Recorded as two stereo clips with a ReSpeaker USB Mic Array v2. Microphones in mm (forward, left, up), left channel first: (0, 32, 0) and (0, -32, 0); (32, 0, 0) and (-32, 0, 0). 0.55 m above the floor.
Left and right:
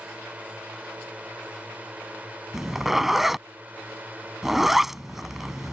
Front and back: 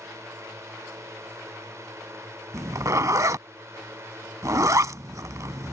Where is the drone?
155° right; by 5.7 s 145° right.